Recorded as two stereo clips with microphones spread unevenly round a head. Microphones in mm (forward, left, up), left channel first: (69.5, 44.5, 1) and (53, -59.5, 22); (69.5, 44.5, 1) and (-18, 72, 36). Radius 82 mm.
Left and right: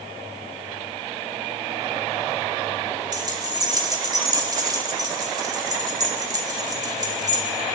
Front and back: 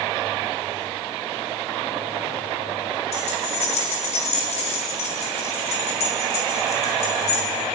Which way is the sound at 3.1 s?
50° right.